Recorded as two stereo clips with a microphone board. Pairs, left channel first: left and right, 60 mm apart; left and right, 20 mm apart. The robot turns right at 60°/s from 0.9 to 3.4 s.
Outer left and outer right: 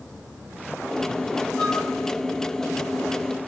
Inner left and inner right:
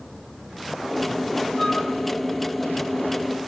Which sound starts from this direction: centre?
A flute, at 1.6 s.